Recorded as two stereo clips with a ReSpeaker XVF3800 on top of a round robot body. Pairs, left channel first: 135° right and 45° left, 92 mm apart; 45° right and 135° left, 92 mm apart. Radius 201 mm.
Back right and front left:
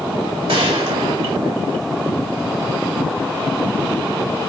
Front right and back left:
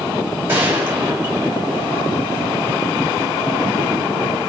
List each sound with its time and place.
0.5 s a gunshot: 65° left, 2.5 m